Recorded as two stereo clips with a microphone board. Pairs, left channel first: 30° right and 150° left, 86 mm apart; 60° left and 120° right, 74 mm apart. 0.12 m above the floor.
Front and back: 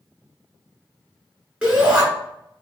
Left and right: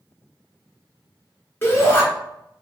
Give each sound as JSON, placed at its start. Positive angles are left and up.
{"t": 1.6, "sound": "a shout", "azimuth_deg": 85, "distance_m": 1.8}